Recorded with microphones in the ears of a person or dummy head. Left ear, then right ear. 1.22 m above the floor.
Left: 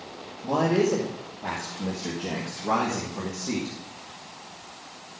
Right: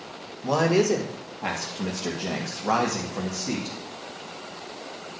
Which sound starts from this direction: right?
A man speaking, at 0.4 s.